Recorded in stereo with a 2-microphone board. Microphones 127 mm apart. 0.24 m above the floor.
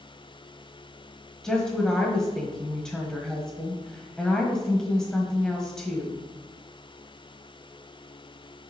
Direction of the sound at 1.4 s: 5° left (ahead or behind).